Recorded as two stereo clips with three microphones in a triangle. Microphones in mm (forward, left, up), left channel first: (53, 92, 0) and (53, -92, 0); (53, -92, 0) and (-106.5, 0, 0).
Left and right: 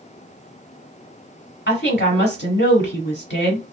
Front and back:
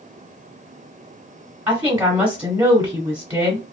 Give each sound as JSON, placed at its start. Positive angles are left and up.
{"t": 1.7, "sound": "a woman speaking", "azimuth_deg": 75, "distance_m": 1.4}